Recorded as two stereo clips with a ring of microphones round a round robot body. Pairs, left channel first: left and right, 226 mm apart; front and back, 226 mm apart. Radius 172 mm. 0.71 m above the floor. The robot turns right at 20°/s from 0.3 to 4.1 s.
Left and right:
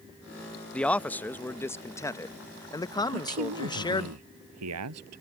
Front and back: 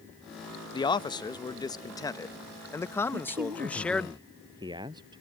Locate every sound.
0.7 s a man speaking: 15° left; by 4.1 s 80° left
3.1 s a man speaking: 125° right; by 5.2 s 105° right